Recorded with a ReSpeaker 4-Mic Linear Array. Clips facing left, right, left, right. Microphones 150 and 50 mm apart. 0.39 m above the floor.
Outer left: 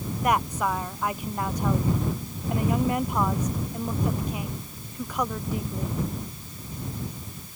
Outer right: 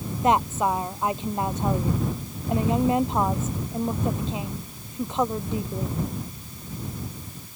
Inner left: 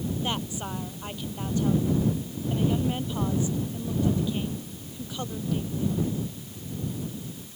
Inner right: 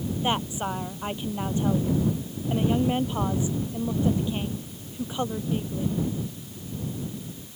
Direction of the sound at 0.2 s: 25° right (ahead or behind).